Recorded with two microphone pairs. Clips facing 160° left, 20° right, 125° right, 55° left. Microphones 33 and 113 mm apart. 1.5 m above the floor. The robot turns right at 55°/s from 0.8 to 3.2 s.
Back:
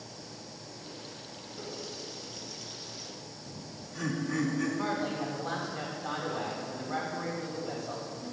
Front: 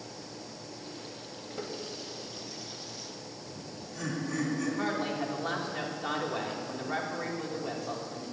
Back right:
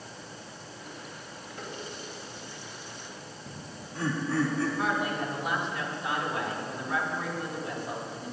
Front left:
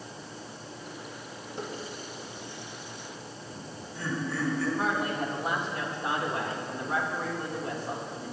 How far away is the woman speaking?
About 2 m.